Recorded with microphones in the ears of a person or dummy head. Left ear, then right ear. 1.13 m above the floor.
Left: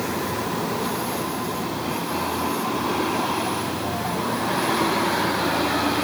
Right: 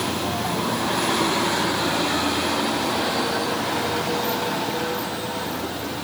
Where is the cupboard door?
I don't hear a cupboard door.